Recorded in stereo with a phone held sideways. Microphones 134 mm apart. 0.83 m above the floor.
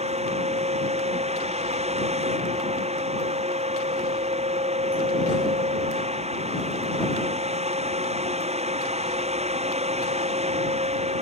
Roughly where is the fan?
Right.